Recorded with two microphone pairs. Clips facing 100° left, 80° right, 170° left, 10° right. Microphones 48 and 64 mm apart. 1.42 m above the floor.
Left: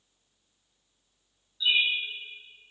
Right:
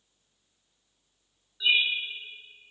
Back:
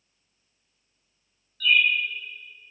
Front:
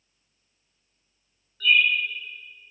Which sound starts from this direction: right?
A bird, at 1.6 s.